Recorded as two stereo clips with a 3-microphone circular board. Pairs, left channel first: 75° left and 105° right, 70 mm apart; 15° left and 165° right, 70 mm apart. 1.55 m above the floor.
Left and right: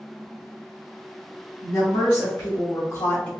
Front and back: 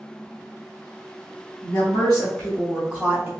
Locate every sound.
1.6 s a woman speaking: 60° left, 1.8 m; by 3.3 s 145° left, 1.0 m